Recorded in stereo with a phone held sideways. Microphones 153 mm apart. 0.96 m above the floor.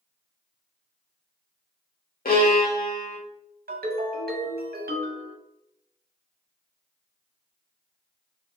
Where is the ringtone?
85° right, 0.6 m.